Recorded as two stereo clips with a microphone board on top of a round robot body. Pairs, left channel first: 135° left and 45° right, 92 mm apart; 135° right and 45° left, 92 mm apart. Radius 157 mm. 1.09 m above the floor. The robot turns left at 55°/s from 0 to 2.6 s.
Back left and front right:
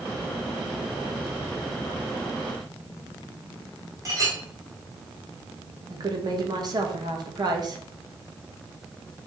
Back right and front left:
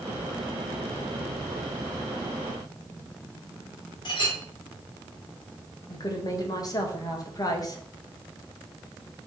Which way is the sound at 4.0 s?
100° right.